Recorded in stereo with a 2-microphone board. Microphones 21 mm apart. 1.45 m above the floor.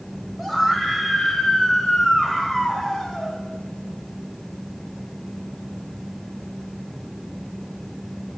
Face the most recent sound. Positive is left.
turn(degrees=15)  # may be behind; listen again after turning